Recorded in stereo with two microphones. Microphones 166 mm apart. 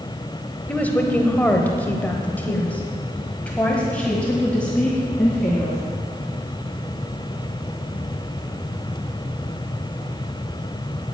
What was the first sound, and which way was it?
A woman speaking, 10° left (ahead or behind).